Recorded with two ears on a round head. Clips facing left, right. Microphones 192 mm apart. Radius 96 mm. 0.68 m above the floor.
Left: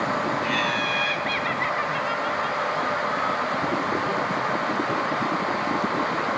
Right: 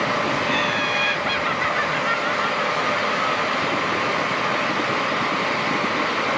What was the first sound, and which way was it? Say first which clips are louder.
Laughter: right 3 dB; 5° left (ahead or behind).